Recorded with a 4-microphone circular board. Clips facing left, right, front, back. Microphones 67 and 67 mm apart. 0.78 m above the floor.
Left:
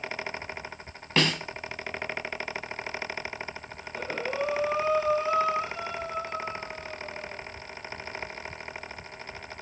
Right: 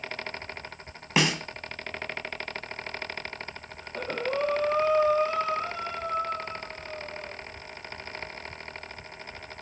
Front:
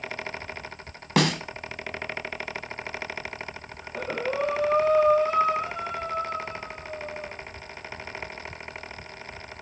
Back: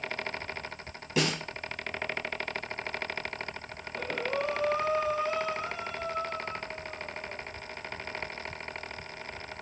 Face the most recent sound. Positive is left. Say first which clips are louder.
# right 2 dB, front 5 dB
turn(degrees=-40)